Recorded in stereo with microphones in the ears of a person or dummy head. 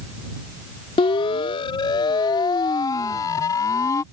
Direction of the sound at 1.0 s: 30° left (ahead or behind).